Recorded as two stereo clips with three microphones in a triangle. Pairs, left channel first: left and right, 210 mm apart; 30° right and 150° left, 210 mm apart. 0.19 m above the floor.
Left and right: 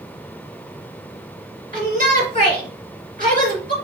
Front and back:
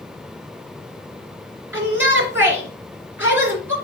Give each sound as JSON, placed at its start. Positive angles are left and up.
{"t": 1.7, "sound": "a shout", "azimuth_deg": -130, "distance_m": 2.5}